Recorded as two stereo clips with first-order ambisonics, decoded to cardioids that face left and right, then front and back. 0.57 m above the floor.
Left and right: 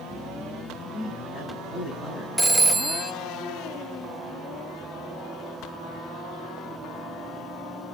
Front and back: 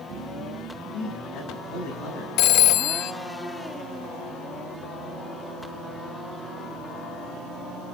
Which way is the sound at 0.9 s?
25° left.